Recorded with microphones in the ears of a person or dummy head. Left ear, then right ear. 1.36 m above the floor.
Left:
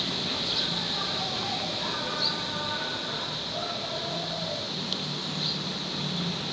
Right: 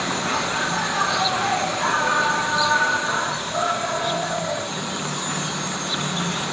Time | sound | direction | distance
0.0 | an insect | 55° right (ahead or behind) | ?